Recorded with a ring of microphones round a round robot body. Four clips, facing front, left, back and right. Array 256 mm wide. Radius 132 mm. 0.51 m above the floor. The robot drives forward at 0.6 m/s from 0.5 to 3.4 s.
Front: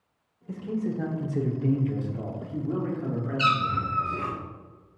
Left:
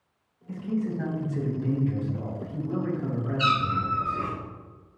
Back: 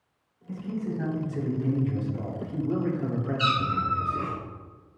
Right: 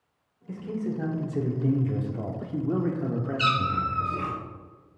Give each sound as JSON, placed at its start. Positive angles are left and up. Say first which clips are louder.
{"t": 0.5, "sound": "a man speaking", "louder": "left 2 dB, front 2 dB", "azimuth_deg": -35, "distance_m": 1.5}
{"t": 3.4, "sound": "a cat meowing", "louder": "left 1 dB, front 2 dB", "azimuth_deg": -50, "distance_m": 1.4}